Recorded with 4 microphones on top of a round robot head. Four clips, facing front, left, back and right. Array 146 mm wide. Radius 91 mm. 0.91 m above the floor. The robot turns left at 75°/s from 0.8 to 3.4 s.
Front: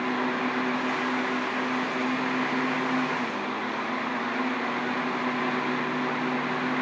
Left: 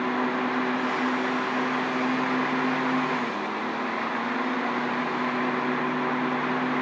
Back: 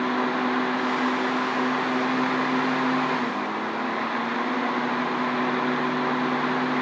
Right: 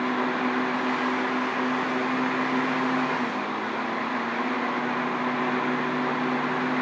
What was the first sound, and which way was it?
Only background noise.